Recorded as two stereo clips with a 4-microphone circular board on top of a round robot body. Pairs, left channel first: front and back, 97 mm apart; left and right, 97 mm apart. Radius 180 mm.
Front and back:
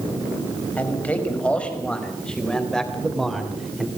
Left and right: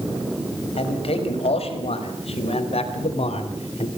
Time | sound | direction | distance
0.8 | a man speaking | 75° left | 5 m